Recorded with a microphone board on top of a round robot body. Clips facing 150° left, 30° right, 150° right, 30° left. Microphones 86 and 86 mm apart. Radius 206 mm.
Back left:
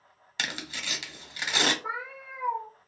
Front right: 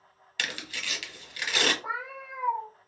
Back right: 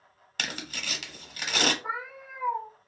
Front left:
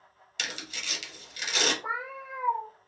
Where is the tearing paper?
150° right, 1.1 m.